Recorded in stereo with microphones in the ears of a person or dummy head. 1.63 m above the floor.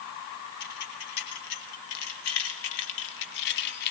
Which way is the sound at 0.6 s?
65° left (ahead or behind).